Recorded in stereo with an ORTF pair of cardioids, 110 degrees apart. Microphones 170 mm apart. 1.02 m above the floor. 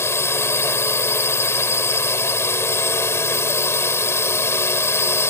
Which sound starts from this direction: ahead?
A drone, at 0.0 s.